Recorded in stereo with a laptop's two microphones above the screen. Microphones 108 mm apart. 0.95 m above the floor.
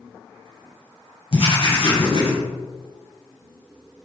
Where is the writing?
60° left (ahead or behind), 3 m.